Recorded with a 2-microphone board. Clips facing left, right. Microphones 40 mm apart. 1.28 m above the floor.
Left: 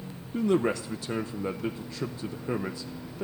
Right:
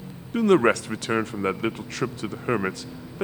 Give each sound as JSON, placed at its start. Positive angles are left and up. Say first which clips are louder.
{"t": 0.3, "sound": "a man speaking", "louder": "right 7 dB", "side_deg": -65, "distance_m": 0.6}